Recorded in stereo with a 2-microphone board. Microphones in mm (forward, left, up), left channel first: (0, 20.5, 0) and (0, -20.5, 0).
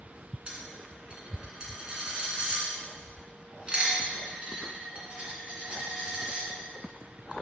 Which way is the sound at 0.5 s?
30° right (ahead or behind).